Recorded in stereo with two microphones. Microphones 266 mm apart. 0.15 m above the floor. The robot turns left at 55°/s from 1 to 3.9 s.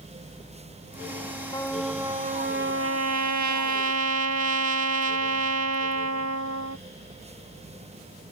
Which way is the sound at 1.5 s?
15° left.